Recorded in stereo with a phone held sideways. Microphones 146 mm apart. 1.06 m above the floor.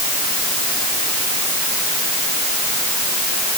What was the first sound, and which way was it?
Only background noise.